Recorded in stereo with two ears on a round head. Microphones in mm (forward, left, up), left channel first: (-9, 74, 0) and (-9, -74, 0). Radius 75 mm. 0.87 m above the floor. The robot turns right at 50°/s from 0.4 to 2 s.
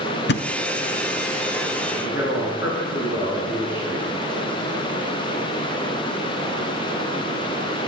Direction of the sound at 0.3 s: 70° left (ahead or behind).